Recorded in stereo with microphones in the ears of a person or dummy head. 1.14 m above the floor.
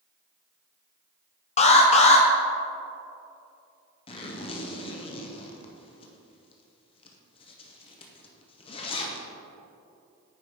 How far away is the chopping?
No chopping in this recording.